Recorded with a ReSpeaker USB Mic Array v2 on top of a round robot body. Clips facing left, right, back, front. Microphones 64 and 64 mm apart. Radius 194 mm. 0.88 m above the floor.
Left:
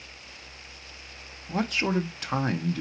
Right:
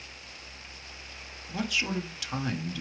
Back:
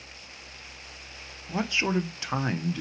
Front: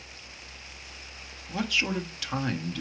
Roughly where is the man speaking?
Behind left.